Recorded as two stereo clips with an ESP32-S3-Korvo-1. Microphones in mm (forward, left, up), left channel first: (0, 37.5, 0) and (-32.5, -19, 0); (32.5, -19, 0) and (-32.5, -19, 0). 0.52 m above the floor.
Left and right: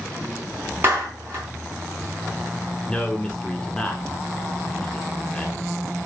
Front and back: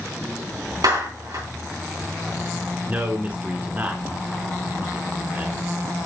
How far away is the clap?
About 3.5 m.